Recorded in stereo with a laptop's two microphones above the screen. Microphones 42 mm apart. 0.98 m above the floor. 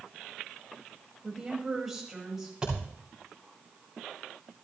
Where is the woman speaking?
10° right (ahead or behind), 5 m.